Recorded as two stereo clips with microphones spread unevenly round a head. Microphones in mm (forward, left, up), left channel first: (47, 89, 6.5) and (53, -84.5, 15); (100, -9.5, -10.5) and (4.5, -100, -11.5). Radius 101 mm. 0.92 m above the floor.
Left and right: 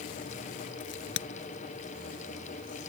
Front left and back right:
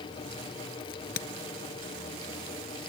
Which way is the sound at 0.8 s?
85° left.